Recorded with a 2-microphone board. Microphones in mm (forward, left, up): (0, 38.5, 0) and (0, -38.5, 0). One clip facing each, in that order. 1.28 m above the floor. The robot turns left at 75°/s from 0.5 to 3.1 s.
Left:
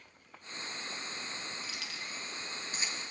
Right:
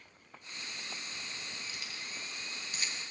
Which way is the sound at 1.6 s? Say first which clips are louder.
Left 2 dB; 60° left (ahead or behind).